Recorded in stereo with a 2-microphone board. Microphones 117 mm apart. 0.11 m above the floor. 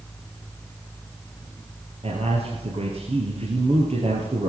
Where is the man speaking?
60° right (ahead or behind), 3 m.